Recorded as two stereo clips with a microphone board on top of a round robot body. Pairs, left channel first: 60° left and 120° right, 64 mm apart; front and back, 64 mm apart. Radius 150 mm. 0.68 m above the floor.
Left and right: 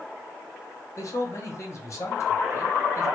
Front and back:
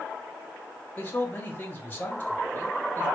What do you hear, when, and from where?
1.0 s a man speaking: 55° left, 1.5 m